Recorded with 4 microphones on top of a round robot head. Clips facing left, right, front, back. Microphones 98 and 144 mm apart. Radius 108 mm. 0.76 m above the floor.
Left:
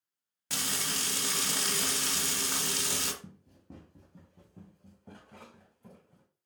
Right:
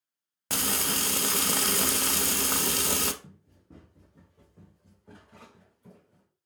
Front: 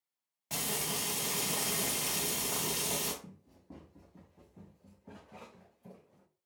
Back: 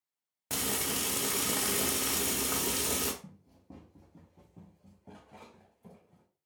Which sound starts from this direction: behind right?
Frying, at 0.5 s.